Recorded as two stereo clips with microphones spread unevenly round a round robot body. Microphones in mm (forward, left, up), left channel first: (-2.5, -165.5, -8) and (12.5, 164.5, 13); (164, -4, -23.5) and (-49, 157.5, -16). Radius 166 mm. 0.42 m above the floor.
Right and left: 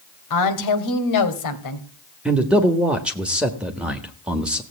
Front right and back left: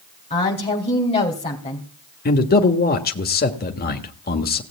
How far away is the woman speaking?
About 2.5 m.